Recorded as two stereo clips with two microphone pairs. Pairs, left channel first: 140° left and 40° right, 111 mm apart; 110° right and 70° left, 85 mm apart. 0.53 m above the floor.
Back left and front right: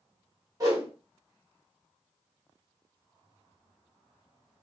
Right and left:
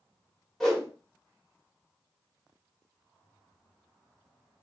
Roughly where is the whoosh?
Ahead right.